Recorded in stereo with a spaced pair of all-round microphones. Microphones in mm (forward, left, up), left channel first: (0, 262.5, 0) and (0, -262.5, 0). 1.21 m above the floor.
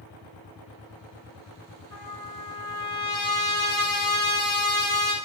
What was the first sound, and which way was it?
A trumpet, 30° left (ahead or behind).